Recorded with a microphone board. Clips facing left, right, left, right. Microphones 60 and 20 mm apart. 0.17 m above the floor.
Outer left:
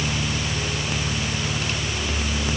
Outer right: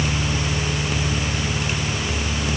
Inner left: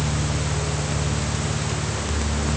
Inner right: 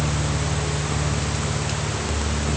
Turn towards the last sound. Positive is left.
No sound to turn to.